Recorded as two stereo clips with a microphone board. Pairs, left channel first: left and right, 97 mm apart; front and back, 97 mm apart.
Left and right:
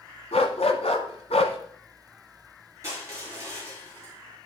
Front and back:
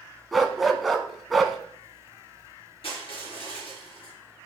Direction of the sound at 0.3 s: 90° left.